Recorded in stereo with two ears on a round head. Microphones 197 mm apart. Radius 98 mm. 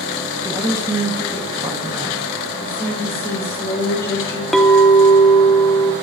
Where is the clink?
Centre (ahead or behind), 0.8 m.